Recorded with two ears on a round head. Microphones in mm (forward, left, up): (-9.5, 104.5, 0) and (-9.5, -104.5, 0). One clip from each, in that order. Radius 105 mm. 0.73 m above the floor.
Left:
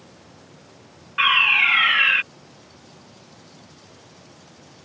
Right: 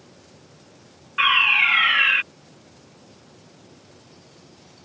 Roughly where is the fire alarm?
Centre.